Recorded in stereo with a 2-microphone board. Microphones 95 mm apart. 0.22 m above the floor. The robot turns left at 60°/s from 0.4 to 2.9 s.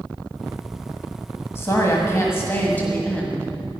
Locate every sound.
1.6 s a woman speaking: 25° left (ahead or behind), 1.4 m; by 3.5 s 15° left (ahead or behind), 1.4 m